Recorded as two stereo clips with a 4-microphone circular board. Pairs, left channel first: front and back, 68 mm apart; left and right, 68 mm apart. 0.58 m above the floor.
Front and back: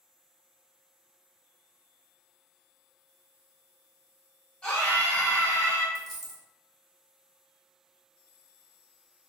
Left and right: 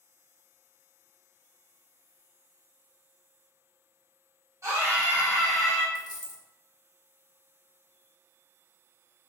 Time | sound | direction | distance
4.6 | a scream | 70° right | 1.6 m
6.0 | a dropped coin | 95° left | 0.9 m